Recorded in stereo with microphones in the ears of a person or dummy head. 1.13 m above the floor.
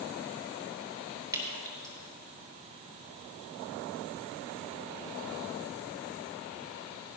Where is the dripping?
15° right (ahead or behind), 3 m.